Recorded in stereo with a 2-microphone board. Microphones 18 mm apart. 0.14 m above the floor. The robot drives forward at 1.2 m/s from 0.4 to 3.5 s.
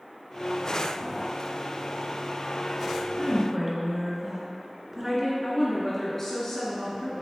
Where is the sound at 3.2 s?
15° right (ahead or behind), 1.4 m.